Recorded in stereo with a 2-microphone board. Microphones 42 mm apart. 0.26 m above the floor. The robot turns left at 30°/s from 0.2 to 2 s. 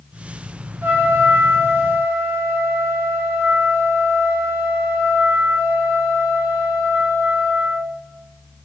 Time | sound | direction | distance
0.8 | a trumpet | 55° right | 0.6 m